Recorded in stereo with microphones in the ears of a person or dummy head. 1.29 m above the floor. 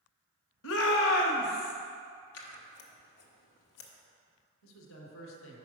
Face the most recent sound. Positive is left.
turn(degrees=75)  # may be behind; listen again after turning